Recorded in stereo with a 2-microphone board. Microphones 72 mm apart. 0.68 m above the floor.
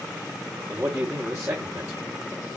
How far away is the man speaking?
About 1.6 m.